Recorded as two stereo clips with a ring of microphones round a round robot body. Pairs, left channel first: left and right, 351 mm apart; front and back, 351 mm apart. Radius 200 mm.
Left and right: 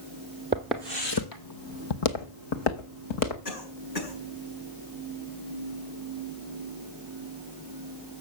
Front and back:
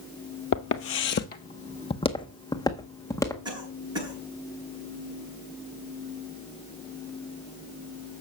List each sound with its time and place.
0.5 s footsteps: 25° right, 0.6 m; by 3.4 s 80° left, 2 m
3.5 s a cough: 100° left, 6 m